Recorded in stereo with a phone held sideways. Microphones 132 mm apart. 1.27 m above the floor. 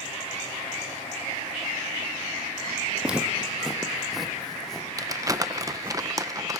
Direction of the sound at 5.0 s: 25° right (ahead or behind).